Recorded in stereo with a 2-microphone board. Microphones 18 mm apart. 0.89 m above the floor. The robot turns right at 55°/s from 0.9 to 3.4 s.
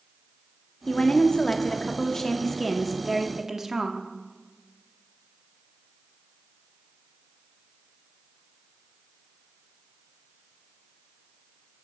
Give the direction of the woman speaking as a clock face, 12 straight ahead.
10 o'clock.